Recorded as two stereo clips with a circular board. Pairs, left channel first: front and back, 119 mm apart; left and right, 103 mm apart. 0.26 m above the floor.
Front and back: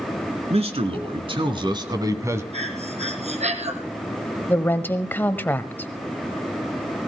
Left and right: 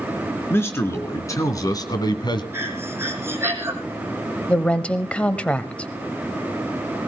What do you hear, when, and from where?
0.5 s a man speaking: 155° left, 3 m; by 2.4 s 115° left, 1.8 m
2.5 s breathing: 155° right, 1.9 m
4.5 s a woman speaking: 35° left, 0.9 m